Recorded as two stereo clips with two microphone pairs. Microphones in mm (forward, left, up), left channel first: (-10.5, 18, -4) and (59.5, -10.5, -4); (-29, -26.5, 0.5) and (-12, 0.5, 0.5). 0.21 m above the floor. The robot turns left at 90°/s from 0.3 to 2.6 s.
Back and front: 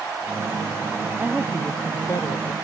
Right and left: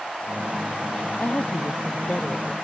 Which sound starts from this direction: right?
A woman speaking, at 1.2 s.